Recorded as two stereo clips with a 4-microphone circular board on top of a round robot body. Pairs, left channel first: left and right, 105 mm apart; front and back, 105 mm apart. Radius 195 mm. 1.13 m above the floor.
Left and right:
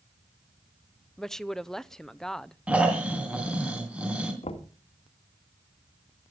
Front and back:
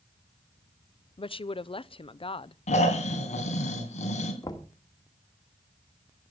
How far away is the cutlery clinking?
No cutlery clinking in this recording.